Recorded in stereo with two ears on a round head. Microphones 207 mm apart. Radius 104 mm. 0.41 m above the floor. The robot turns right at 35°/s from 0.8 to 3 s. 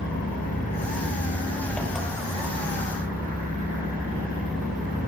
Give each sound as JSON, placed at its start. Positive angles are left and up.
{"t": 0.0, "sound": "an engine running", "azimuth_deg": 140, "distance_m": 6.5}